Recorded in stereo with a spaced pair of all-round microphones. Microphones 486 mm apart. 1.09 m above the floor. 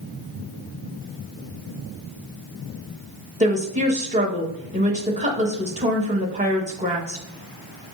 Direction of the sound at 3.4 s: 15° right (ahead or behind).